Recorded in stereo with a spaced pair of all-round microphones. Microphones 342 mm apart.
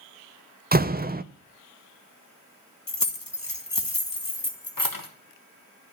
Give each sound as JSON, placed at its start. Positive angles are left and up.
{"t": 0.7, "sound": "a door slam", "side_deg": -25, "distance_m": 0.5}
{"t": 2.9, "sound": "keys jangling", "side_deg": 70, "distance_m": 1.4}